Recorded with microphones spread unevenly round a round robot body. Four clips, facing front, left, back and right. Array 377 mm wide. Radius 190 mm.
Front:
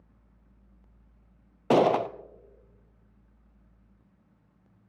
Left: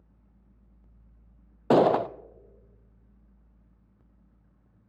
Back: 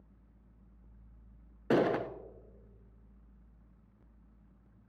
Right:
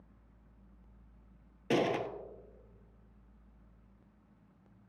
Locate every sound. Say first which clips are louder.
1.7 s a gunshot: left 11 dB, front 7 dB; 40° left, 0.5 m